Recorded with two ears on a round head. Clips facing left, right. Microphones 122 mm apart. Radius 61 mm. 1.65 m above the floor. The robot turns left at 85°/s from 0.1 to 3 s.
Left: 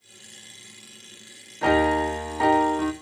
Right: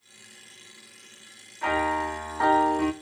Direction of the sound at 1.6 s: 95° left.